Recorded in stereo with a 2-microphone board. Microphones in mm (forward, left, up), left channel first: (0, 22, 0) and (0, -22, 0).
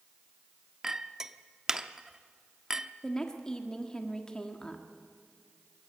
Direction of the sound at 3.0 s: 20° left (ahead or behind).